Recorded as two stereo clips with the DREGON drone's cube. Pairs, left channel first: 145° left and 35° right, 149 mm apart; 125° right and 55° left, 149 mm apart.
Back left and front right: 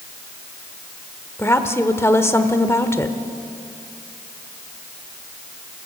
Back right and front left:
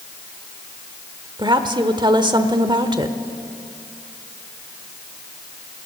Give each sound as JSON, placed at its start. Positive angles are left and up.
{"t": 1.4, "sound": "a woman speaking", "azimuth_deg": 85, "distance_m": 1.1}